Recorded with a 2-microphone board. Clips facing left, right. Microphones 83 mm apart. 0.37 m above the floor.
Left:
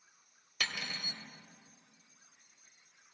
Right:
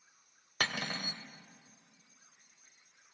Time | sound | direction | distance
0.6 | cutlery clinking | 50° right (ahead or behind) | 0.7 m